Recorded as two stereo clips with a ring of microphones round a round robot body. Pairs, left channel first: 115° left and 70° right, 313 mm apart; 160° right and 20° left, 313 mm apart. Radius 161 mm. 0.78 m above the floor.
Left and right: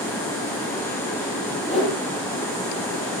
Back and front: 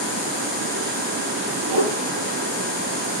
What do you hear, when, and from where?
1.7 s a whoosh: 25° left, 10 m